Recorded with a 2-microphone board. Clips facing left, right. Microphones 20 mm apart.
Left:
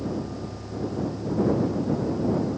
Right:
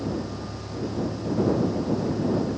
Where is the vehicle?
55° left (ahead or behind); by 2.6 s 20° left (ahead or behind).